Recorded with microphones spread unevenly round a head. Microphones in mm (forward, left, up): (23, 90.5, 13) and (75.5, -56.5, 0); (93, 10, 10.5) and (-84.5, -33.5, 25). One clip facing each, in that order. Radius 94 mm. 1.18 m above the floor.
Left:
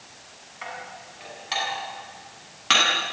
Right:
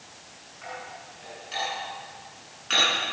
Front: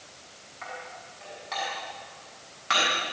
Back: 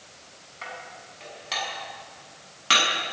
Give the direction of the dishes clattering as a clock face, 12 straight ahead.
7 o'clock.